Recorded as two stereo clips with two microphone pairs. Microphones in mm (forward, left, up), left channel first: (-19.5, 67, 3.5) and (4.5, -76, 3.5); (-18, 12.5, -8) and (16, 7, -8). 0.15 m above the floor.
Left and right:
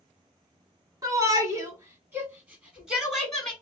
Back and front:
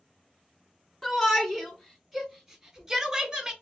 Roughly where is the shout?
Behind right.